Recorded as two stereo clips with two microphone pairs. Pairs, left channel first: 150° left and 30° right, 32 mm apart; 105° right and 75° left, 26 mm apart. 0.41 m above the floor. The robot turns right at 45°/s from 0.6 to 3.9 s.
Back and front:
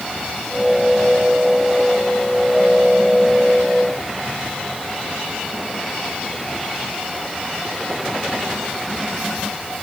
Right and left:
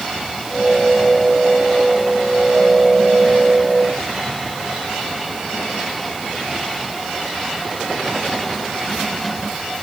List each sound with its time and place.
Only background noise.